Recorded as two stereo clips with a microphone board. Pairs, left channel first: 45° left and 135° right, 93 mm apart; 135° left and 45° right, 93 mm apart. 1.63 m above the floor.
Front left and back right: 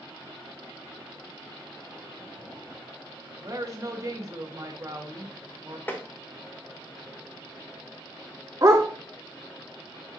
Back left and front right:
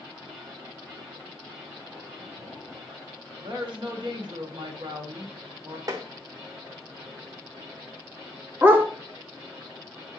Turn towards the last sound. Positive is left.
turn(degrees=-100)